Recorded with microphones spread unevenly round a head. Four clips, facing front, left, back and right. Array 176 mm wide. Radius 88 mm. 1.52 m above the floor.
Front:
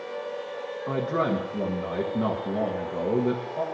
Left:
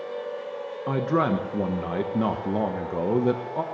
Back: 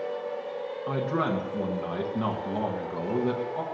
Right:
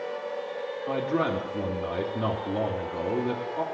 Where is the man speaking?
75° left, 1.5 m.